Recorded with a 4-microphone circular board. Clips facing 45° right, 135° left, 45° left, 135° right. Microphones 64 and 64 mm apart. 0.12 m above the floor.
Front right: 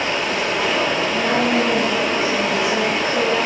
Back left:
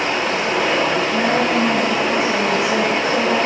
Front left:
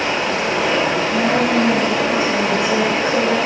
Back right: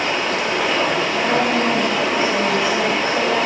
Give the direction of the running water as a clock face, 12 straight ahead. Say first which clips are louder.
Back left 2 dB, front left 1 dB; 9 o'clock.